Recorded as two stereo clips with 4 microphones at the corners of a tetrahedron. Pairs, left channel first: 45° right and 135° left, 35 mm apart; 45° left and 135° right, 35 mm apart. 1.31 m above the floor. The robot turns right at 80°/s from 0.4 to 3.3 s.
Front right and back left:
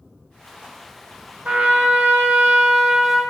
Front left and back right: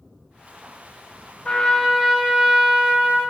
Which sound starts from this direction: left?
A trumpet, at 1.4 s.